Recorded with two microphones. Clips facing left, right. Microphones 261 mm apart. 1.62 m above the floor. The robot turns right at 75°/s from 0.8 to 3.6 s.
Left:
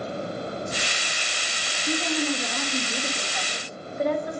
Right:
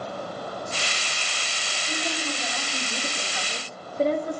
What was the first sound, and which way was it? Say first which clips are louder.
A woman speaking: left 7 dB; 80° left.